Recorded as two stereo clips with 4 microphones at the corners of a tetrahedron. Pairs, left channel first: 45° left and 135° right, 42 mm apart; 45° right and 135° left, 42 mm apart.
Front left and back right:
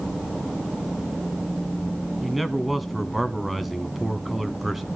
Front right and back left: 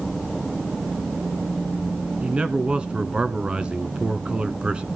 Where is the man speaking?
145° left, 1.1 m.